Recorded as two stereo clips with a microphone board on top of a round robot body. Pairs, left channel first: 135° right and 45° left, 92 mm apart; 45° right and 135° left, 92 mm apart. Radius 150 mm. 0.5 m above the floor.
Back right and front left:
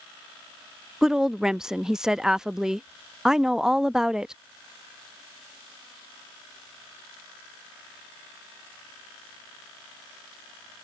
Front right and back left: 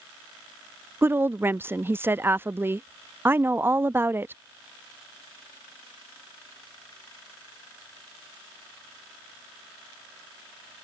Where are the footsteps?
I don't hear footsteps.